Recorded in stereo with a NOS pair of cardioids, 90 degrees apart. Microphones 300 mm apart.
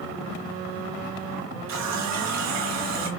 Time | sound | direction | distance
1.7 | a running tap | 60° right | 1.4 m